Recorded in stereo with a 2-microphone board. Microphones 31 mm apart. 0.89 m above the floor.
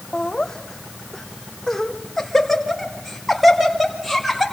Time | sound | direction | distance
0.1 | laughter | 20° left (ahead or behind) | 2 m